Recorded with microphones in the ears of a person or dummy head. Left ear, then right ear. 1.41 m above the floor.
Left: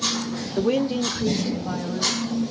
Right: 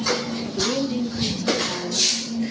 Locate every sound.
0.6 s a woman speaking: 70° left (ahead or behind), 0.6 m; by 2.1 s 10° left (ahead or behind), 0.9 m